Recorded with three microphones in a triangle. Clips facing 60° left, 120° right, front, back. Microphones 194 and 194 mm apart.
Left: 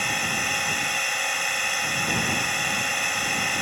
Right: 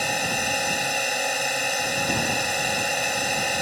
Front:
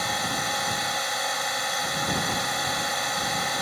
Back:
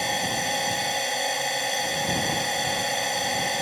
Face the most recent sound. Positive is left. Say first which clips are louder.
# right 4 dB, back 2 dB
turn(degrees=-125)